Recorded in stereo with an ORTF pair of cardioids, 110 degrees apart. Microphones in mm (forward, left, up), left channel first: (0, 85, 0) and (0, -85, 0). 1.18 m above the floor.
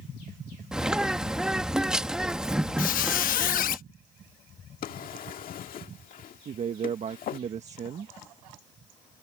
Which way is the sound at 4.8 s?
55° left.